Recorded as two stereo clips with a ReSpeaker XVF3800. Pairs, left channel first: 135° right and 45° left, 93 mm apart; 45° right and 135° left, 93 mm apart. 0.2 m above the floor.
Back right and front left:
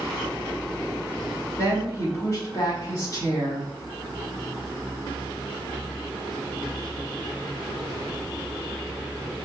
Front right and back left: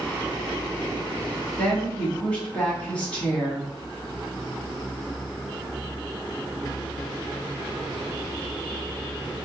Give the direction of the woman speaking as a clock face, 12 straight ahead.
4 o'clock.